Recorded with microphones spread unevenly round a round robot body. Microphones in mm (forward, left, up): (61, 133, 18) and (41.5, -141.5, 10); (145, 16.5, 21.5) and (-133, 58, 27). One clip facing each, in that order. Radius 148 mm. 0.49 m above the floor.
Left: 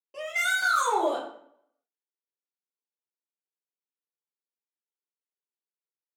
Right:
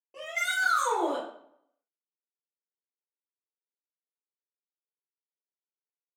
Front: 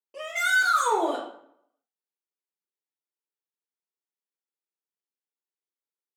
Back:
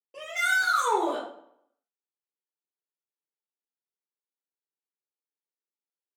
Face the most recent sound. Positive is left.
turn(degrees=80)